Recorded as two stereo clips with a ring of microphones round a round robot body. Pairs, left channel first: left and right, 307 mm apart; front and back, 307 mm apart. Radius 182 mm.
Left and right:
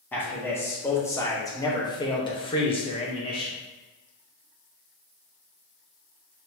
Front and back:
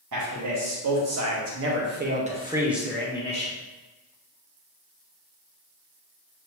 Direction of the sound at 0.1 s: 175° left.